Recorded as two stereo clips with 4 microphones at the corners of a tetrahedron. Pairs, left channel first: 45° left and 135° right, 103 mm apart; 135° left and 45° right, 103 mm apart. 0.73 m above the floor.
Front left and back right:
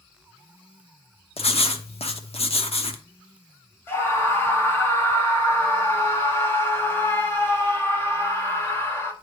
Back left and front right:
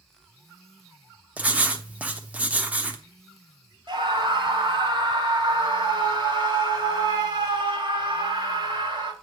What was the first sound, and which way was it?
Writing, 30° left.